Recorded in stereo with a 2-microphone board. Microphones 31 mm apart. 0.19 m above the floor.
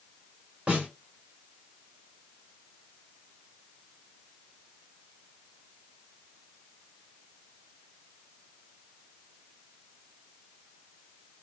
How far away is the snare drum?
About 2 m.